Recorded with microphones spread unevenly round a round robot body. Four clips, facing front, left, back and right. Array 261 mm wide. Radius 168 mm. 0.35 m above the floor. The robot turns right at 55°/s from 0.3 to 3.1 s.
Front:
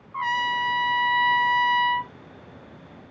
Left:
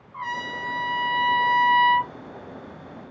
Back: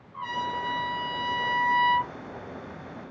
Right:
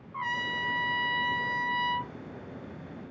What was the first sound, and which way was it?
A trumpet, straight ahead.